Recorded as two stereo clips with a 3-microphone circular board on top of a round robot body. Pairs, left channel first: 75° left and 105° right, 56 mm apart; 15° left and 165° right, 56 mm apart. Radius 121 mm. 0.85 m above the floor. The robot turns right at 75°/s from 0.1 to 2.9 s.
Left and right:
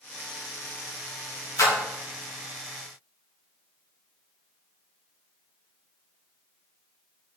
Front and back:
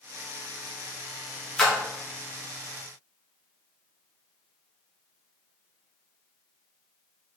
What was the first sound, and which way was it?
A splash, 95° left.